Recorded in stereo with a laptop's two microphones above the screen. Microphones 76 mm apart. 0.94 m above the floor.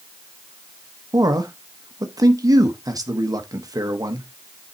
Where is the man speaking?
55° right (ahead or behind), 0.9 m.